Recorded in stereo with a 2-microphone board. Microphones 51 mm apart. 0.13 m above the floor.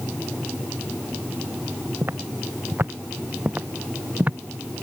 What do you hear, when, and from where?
2.0 s footsteps: 45° right (ahead or behind); by 4.4 s 30° right (ahead or behind)